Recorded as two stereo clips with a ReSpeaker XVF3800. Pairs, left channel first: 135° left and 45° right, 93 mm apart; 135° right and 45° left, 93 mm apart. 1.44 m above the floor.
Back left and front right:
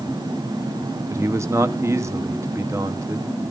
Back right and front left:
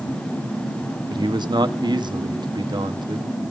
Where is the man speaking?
10° left, 1.3 m.